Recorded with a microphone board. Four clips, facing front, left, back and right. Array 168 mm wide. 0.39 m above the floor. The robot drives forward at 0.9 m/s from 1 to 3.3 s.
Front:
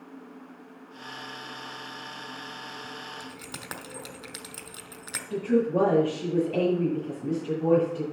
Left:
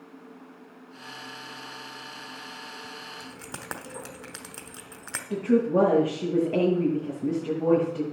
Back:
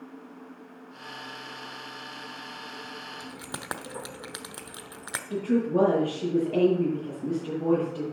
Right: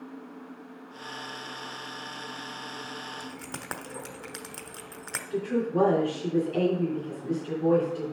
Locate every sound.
3.2 s keys jangling: 175° right, 0.8 m
5.3 s a woman speaking: 100° left, 6 m